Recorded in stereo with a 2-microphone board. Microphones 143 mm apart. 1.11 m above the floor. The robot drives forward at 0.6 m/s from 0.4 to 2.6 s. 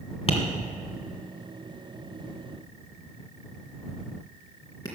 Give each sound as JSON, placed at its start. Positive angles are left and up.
{"t": 0.3, "sound": "tapping", "side_deg": 45, "distance_m": 1.9}